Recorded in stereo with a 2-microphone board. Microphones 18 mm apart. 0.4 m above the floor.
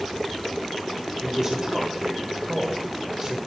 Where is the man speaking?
25° right (ahead or behind), 1.1 m.